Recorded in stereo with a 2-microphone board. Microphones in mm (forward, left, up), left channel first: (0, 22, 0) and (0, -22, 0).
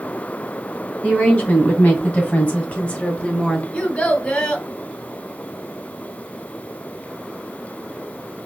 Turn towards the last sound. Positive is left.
turn(degrees=25)  # may be behind; listen again after turning